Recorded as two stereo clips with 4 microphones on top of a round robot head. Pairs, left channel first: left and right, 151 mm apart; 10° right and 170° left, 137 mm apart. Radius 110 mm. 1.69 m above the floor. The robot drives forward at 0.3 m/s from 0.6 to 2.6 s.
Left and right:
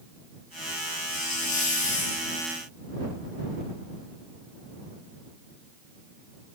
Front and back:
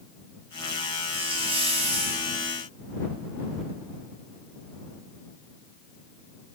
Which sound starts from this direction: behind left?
A hiss, at 1.1 s.